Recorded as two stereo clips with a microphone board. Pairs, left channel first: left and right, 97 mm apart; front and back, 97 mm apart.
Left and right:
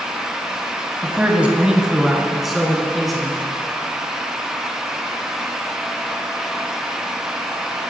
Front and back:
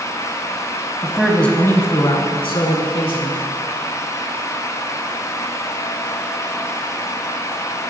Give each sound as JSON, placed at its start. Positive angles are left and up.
{"t": 1.0, "sound": "a man speaking", "azimuth_deg": -140, "distance_m": 1.1}